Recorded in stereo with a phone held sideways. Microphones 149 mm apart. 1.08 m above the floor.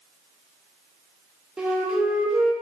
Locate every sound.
1.6 s a flute: 5° right (ahead or behind), 1.5 m